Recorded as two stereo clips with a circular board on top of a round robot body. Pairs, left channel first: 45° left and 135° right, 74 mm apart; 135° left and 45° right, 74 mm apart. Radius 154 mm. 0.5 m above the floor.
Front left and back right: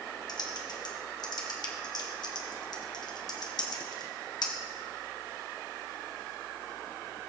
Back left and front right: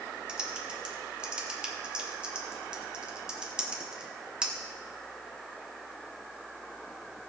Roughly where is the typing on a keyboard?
Ahead left.